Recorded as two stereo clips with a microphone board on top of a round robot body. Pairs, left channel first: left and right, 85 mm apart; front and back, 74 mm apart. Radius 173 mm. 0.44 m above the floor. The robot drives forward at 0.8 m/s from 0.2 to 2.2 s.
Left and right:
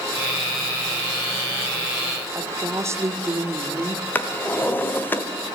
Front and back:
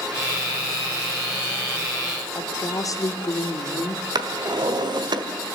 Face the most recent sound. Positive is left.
turn(degrees=160)